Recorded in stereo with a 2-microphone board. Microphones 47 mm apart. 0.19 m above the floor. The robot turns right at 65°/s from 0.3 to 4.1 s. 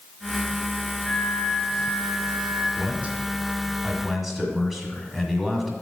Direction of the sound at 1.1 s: 10° left.